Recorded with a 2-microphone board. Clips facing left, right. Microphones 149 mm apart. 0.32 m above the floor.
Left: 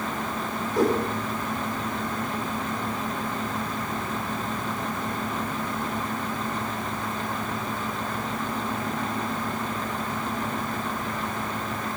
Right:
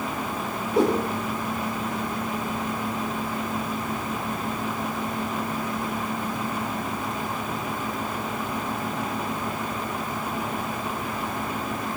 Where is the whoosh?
30° right (ahead or behind), 9 m.